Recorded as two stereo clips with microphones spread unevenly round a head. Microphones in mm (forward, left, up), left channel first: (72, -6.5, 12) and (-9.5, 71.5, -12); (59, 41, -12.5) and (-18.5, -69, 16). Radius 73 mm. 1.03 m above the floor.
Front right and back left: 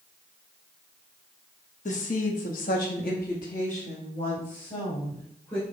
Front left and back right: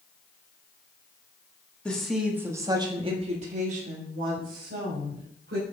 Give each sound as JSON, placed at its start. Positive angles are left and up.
{"t": 1.9, "sound": "a woman speaking", "azimuth_deg": -25, "distance_m": 1.5}